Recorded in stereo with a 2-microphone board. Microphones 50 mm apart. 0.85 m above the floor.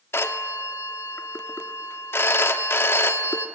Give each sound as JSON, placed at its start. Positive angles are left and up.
{"t": 0.1, "sound": "a phone ringing", "side_deg": 50, "distance_m": 1.4}